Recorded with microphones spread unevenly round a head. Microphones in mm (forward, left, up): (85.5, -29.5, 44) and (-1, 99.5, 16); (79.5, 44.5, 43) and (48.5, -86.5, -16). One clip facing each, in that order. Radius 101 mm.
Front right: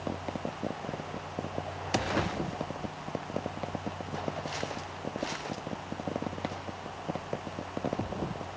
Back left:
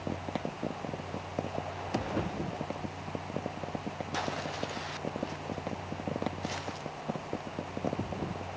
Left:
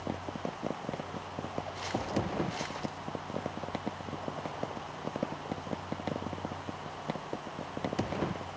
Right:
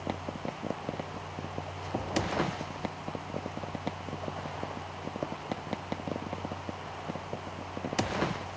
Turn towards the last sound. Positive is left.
No sound to turn to.